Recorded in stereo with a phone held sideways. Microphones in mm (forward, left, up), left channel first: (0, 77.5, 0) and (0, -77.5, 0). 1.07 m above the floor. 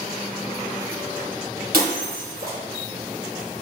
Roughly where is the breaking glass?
Right.